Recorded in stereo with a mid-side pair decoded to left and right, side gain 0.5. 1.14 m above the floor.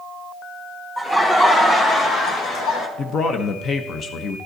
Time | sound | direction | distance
1.0 | laughter | 15° left | 1.8 m
3.0 | a man speaking | 50° left | 0.9 m